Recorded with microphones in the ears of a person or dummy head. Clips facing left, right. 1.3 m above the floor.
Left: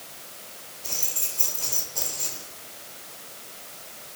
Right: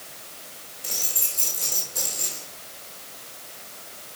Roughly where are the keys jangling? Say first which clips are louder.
Right 2 dB; right.